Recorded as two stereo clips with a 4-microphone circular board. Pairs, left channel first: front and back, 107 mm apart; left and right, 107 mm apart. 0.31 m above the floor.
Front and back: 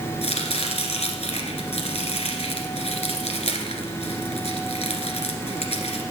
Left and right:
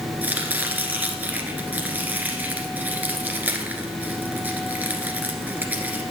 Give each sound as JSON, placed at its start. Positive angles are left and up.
{"t": 0.2, "sound": "chopping", "azimuth_deg": -15, "distance_m": 1.5}